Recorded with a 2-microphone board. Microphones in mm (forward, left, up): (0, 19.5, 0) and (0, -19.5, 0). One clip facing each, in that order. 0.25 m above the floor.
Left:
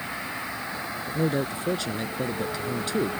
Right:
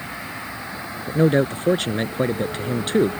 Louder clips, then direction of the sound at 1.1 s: Right 9 dB; 50° right (ahead or behind).